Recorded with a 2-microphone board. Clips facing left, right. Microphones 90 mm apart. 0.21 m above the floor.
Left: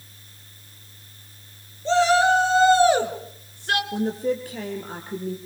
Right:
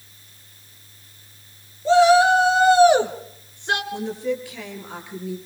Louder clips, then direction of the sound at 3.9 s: Left 2 dB; 45° left (ahead or behind).